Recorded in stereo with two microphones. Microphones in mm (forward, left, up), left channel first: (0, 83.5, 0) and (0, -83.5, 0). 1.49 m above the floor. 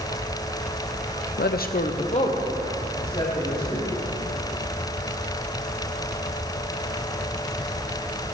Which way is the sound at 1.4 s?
70° left (ahead or behind).